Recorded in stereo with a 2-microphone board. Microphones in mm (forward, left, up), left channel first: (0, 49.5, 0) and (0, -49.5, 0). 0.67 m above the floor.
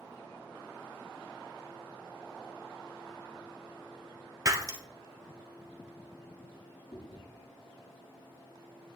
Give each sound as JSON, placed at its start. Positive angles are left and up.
{"t": 4.5, "sound": "breaking glass", "side_deg": -35, "distance_m": 1.3}
{"t": 6.9, "sound": "chewing", "side_deg": 60, "distance_m": 5.5}